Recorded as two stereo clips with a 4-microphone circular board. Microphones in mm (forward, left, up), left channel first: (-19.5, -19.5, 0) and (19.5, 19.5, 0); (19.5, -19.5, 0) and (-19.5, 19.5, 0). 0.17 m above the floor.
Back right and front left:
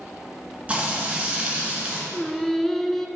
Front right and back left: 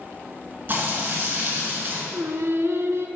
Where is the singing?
140° left, 0.5 m.